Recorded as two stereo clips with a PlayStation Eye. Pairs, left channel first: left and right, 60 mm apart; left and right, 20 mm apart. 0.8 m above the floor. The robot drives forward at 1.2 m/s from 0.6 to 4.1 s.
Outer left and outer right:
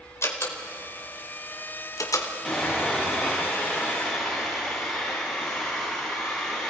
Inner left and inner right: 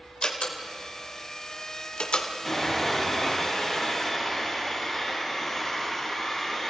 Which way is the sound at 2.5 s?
Centre (ahead or behind).